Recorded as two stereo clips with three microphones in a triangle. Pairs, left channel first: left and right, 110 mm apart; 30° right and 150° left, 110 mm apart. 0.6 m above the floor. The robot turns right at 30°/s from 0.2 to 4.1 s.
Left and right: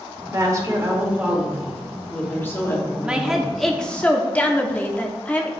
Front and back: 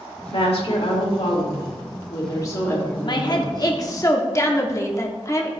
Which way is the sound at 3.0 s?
15° right.